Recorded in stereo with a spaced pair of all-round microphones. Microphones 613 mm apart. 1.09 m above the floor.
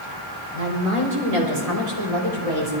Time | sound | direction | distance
0.5 | a woman speaking | 80° right | 4.5 m